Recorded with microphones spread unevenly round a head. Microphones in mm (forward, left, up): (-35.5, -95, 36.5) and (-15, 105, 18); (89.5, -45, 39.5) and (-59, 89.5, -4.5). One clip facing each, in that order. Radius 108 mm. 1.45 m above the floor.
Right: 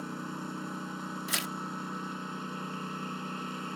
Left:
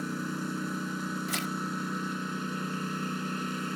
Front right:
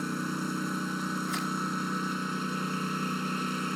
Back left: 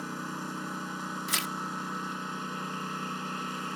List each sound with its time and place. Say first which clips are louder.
0.0 s a lawn mower: left 5 dB, front right 6 dB; 15° left
1.3 s tearing paper: left 4 dB, front right 5 dB; 170° right